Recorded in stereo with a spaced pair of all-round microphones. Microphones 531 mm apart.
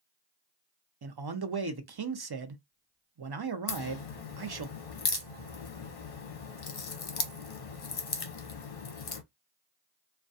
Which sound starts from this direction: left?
A crack, at 3.7 s.